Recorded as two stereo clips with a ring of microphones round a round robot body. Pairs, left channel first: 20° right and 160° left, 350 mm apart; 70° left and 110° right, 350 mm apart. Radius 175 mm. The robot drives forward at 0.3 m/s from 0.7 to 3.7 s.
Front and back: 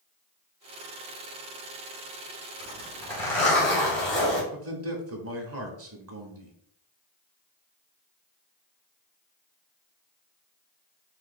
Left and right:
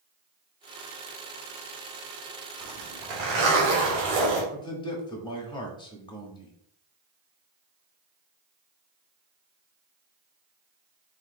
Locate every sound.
2.6 s a zipper: 100° right, 2.5 m; by 4.4 s 110° right, 2.5 m
4.5 s a man speaking: 140° left, 1.0 m